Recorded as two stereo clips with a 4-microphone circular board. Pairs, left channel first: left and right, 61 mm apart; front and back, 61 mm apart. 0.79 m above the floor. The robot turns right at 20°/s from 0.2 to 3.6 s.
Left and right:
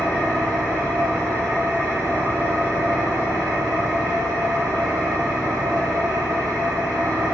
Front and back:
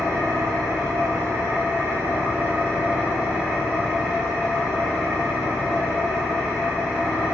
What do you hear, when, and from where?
0.0 s an engine running: 165° right, 1.7 m; by 7.3 s 100° right, 1.7 m